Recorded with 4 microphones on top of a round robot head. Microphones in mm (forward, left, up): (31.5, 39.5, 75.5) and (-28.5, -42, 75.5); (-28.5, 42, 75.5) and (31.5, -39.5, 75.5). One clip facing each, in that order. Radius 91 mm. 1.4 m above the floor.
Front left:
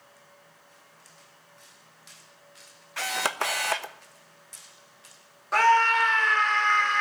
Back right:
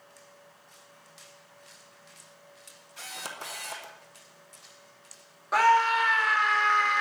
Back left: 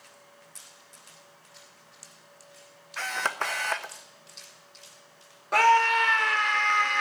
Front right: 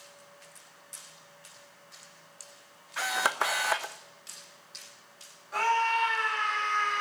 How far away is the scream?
About 3 m.